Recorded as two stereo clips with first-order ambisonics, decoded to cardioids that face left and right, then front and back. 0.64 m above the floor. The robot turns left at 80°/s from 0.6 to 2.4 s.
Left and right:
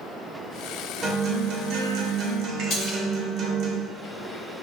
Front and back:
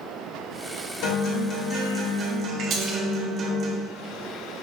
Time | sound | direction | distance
1.0 | a guitar | 25° right | 0.7 m
2.7 | a splash | 135° left | 0.9 m